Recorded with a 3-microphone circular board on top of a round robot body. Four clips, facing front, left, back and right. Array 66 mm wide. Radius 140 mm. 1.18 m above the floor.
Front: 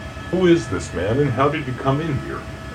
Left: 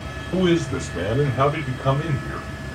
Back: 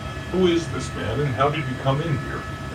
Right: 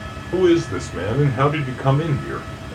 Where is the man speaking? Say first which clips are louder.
Right 4 dB, front 4 dB; 10° right, 1.3 m; by 2.8 s 70° right, 1.5 m.